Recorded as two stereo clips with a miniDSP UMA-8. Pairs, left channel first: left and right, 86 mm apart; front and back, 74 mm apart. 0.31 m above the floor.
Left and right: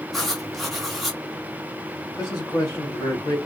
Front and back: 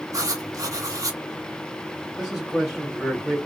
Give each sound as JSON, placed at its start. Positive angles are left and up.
{"t": 0.1, "sound": "writing", "azimuth_deg": 175, "distance_m": 0.9}
{"t": 2.2, "sound": "a man speaking", "azimuth_deg": 110, "distance_m": 1.6}